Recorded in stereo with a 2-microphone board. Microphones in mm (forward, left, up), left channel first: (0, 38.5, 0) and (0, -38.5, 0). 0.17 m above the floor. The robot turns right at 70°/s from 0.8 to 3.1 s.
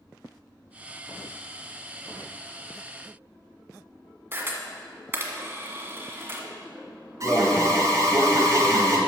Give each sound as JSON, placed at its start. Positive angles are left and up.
{"t": 4.3, "sound": "a camera shutter", "side_deg": -30, "distance_m": 1.5}
{"t": 7.2, "sound": "an alarm", "side_deg": -40, "distance_m": 1.8}